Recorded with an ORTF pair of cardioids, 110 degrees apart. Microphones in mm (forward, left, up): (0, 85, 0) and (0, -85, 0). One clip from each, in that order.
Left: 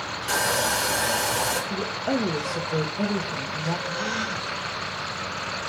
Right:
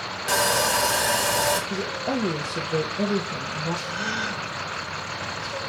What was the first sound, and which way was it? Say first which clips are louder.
Sawing: right 2 dB; 25° right.